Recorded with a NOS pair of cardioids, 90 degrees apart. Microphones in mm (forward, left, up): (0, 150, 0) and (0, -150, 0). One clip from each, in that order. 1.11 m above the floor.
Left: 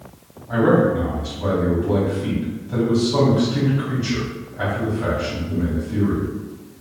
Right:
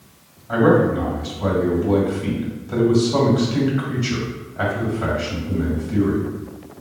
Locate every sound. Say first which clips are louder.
0.5 s a man speaking: right 1 dB; 35° right, 1.9 m